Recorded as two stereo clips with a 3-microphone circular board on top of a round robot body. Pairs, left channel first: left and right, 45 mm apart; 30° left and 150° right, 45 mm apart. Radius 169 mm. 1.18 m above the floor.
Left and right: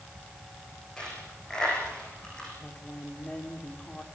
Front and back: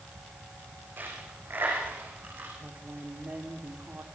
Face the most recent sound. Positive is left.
turn(degrees=155)